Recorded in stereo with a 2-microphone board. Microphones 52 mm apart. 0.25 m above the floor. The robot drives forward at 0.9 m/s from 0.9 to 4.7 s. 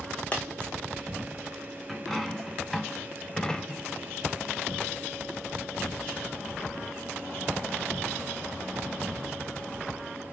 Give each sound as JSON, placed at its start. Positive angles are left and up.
{"t": 0.3, "sound": "a dropped coin", "side_deg": 25, "distance_m": 2.0}
{"t": 1.9, "sound": "a dropped coin", "side_deg": 5, "distance_m": 1.5}